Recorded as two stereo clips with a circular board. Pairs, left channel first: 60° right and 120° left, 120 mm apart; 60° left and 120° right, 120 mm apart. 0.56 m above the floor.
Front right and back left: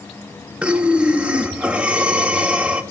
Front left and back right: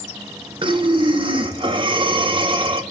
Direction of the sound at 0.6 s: 160° right.